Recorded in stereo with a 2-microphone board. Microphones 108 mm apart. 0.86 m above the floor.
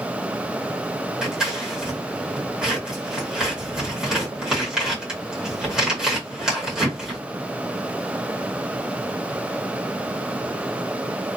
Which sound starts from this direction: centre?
Scissors, at 1.2 s.